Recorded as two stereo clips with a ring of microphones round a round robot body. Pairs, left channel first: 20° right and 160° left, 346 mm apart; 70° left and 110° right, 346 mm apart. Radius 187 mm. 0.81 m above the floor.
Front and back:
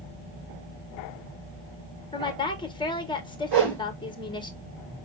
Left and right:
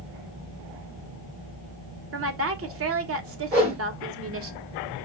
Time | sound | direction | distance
2.1 | a woman speaking | 95° right | 1.1 m
3.5 | a whoosh | 175° right | 3.5 m